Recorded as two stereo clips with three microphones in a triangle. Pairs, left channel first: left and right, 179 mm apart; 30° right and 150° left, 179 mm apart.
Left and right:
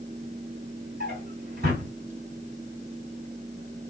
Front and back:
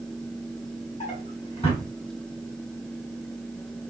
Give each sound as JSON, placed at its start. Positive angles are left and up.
{"t": 1.0, "sound": "a drawer", "azimuth_deg": -80, "distance_m": 1.4}